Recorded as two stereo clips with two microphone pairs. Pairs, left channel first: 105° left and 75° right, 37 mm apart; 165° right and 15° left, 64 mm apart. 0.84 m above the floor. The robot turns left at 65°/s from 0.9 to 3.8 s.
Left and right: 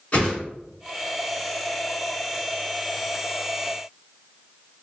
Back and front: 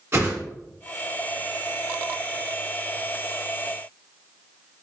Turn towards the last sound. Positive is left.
turn(degrees=-130)